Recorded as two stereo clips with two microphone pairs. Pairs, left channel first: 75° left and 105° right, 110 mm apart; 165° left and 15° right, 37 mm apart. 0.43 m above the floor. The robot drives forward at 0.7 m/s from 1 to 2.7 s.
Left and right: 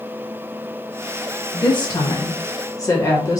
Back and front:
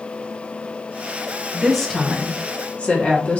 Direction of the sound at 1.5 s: 70° left.